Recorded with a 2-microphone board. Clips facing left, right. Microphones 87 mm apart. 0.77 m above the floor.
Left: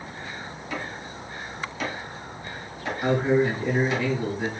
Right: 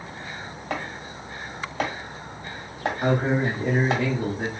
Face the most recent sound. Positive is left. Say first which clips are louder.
# left 2 dB
turn(degrees=-45)  # may be behind; listen again after turning